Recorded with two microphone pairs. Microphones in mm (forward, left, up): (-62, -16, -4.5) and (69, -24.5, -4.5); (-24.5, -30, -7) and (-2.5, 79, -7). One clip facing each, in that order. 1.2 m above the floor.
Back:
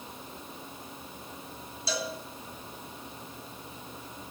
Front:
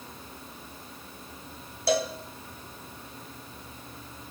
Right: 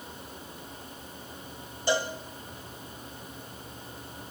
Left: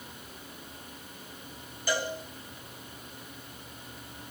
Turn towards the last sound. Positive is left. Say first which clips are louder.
# front 8 dB, right 3 dB
turn(degrees=-35)